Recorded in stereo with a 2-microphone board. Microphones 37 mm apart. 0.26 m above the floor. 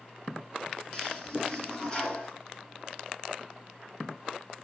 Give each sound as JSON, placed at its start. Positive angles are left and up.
{"t": 0.9, "sound": "a toilet flushing", "side_deg": 20, "distance_m": 1.8}